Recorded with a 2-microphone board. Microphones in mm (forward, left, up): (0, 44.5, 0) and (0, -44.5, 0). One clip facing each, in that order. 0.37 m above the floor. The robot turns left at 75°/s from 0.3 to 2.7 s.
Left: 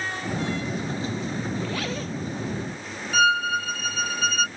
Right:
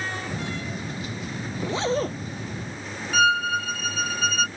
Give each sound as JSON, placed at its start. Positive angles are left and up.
{"t": 1.6, "sound": "a zipper", "azimuth_deg": -5}
{"t": 3.1, "sound": "a violin", "side_deg": 0}